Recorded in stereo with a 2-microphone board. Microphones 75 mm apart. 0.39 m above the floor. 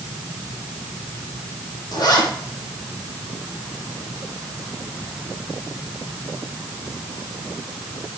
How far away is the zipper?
About 6.5 m.